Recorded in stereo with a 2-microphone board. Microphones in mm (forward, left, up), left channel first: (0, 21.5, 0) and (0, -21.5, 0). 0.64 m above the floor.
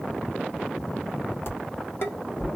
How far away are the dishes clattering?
About 0.8 m.